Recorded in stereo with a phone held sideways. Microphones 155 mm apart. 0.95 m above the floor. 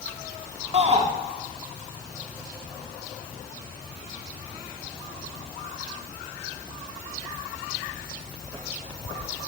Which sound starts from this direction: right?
A shout, at 0.7 s.